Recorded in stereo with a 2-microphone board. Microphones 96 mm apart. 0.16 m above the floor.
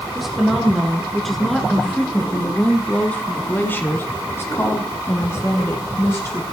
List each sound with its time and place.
0.1 s a woman speaking: 5° right (ahead or behind), 2.5 m; by 6.4 s 25° left (ahead or behind), 1.8 m